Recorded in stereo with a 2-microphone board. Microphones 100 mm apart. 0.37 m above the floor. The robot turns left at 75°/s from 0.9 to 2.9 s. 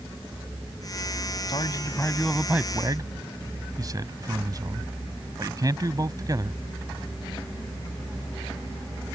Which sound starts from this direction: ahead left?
A man speaking, at 1.5 s.